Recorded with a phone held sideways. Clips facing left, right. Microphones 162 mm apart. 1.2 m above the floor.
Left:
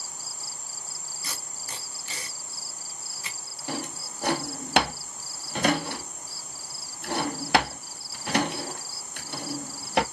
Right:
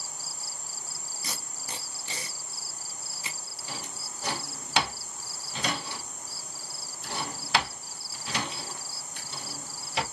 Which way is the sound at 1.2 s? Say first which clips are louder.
Right 1 dB; 20° right (ahead or behind).